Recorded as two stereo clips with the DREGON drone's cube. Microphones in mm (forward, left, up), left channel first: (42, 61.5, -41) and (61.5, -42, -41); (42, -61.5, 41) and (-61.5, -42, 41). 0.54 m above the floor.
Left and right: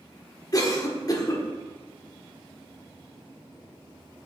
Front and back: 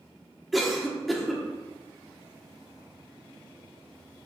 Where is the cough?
80° left, 1.3 m.